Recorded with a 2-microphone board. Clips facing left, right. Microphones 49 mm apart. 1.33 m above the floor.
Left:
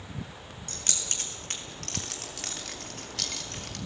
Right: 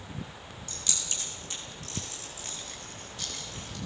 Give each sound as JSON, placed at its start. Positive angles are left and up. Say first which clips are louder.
{"t": 0.7, "sound": "keys jangling", "louder": "left 1 dB", "side_deg": 45, "distance_m": 4.0}